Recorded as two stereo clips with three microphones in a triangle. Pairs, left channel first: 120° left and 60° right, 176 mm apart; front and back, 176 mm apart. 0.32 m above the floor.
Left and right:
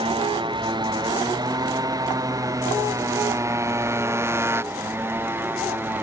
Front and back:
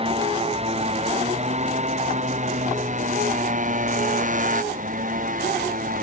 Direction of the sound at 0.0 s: 120° right.